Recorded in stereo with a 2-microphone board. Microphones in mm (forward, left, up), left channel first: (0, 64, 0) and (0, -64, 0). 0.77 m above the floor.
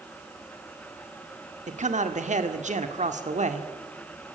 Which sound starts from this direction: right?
A man speaking, at 1.7 s.